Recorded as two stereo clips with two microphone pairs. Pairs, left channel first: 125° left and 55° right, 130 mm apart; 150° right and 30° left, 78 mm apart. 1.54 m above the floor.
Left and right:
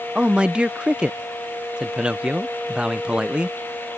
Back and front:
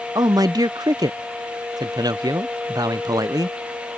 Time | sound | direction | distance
0.1 | a man speaking | 25° left | ?